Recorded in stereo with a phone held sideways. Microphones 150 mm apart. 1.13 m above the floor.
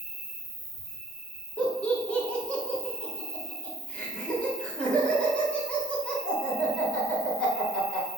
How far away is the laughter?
About 1.3 m.